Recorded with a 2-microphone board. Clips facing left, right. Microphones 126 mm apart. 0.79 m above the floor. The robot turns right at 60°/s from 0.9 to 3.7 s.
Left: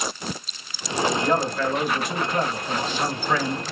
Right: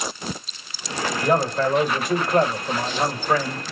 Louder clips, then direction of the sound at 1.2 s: Right 2 dB; 170° right.